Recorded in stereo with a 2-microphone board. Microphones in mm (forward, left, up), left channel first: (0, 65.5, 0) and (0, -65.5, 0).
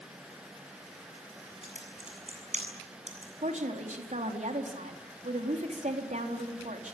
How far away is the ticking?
No ticking in this recording.